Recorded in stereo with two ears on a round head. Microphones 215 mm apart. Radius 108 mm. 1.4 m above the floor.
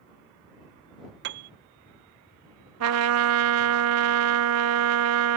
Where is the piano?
45° right (ahead or behind).